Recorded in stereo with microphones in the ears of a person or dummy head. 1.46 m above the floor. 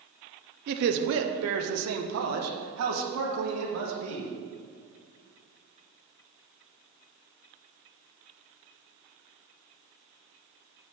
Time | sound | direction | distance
0.7 | a man speaking | 45° right (ahead or behind) | 0.5 m